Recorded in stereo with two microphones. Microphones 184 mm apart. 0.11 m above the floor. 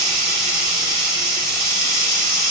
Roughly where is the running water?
Centre.